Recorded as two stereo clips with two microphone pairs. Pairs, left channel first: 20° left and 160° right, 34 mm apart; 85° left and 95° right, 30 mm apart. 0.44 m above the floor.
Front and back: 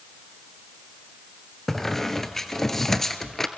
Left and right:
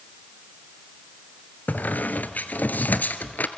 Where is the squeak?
100° left, 1.4 m.